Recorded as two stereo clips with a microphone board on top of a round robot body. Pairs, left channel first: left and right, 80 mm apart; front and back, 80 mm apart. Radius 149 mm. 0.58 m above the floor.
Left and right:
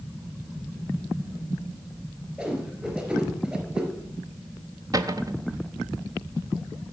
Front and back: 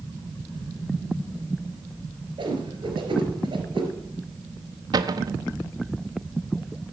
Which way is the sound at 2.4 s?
165° right.